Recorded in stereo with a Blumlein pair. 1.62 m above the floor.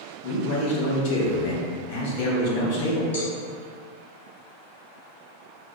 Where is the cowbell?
60° left, 1.1 m.